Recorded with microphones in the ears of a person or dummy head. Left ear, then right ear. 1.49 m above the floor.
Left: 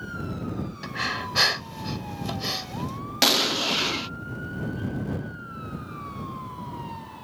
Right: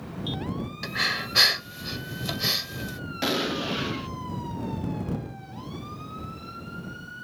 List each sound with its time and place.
0.8 s breathing: 20° right (ahead or behind)
3.2 s an explosion: 45° left (ahead or behind)